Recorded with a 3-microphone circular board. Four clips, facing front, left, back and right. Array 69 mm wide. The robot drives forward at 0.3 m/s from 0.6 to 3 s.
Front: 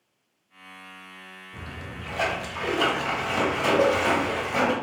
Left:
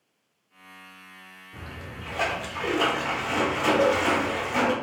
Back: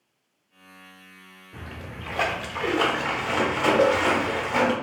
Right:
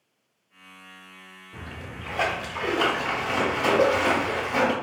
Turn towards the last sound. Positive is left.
turn(degrees=-160)